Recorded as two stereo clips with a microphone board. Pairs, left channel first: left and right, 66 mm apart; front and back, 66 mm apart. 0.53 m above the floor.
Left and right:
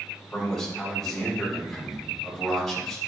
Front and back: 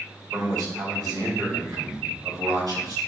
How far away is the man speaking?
About 3 m.